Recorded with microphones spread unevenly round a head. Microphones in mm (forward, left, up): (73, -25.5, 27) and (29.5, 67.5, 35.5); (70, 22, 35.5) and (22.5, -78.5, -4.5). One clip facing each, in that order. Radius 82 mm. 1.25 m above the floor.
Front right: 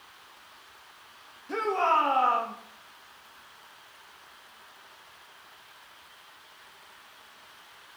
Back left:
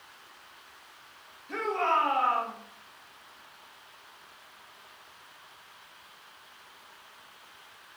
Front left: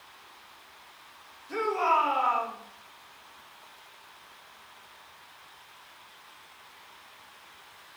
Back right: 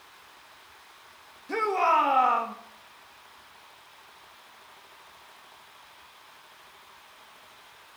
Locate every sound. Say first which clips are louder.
1.5 s a shout: front right 2 dB, back right 2 dB; 130° right, 2.5 m